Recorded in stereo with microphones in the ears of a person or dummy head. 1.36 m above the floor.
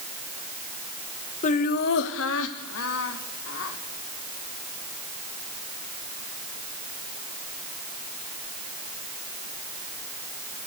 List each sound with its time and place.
1.4 s laughter: 40° left (ahead or behind), 1.1 m; by 3.8 s 85° left, 3 m